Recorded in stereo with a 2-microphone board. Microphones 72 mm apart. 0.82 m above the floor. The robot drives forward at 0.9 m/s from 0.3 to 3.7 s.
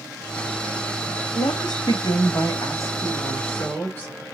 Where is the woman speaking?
70° left (ahead or behind), 1.1 m; by 4.1 s 25° left (ahead or behind), 2 m.